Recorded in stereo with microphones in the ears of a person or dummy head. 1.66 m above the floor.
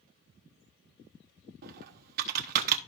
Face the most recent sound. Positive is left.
turn(degrees=-55)  # may be behind; listen again after turning